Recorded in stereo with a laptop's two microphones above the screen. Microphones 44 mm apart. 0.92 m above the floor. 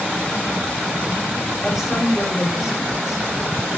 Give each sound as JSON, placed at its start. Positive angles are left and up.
{"t": 1.6, "sound": "a woman speaking", "side_deg": -10, "distance_m": 1.9}